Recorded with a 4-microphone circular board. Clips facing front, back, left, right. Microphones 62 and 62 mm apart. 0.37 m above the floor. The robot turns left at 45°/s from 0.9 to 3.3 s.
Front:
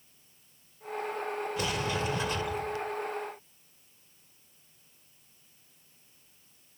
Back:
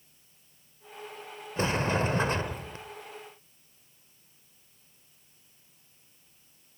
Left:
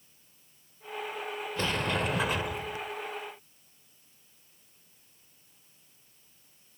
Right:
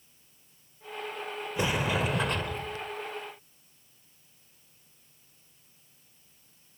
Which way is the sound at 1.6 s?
150° right.